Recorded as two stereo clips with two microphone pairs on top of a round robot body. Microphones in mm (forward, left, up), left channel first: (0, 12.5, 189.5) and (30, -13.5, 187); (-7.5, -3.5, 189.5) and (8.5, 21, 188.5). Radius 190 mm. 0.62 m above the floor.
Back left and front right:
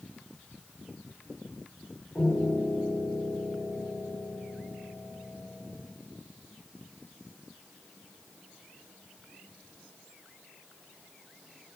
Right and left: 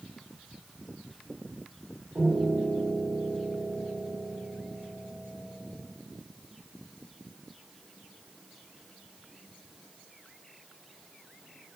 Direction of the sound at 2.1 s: 55° left.